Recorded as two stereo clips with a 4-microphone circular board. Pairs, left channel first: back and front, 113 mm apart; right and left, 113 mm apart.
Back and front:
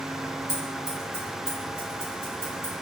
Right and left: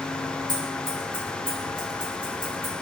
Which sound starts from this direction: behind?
Scissors, at 0.5 s.